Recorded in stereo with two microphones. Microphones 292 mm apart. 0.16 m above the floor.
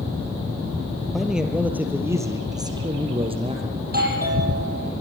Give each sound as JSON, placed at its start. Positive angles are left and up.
{"t": 1.1, "sound": "a man speaking", "side_deg": 0, "distance_m": 3.5}
{"t": 3.8, "sound": "a doorbell", "side_deg": -30, "distance_m": 6.0}